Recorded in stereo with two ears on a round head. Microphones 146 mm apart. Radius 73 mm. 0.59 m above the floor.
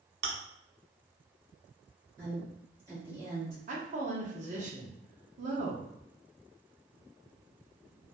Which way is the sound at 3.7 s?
45° right (ahead or behind).